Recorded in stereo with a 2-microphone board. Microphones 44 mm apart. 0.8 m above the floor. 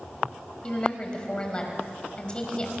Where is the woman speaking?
20° left (ahead or behind), 5 m.